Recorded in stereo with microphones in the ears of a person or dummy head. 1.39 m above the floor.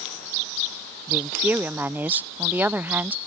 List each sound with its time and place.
1.1 s a woman speaking: 5° right (ahead or behind)